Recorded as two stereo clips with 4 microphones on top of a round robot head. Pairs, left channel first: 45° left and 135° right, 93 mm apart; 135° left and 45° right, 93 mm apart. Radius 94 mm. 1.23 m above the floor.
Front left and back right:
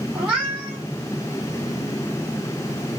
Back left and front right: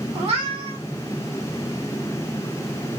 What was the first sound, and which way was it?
A cat meowing, 60° right.